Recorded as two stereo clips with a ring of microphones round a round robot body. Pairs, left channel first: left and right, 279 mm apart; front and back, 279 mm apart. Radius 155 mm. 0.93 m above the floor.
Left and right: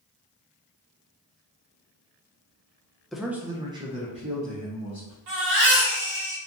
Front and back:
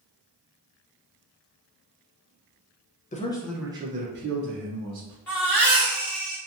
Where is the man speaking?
Straight ahead, 0.5 m; by 5.2 s 155° right, 1.1 m.